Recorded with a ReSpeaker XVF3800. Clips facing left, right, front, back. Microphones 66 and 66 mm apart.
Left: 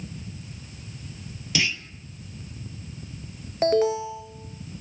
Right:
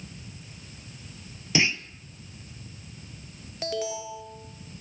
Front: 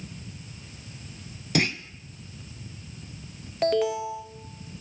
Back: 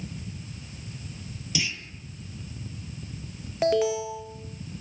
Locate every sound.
1.6 s a clunk: 30° right, 1.0 m
3.6 s an alarm: 100° left, 1.8 m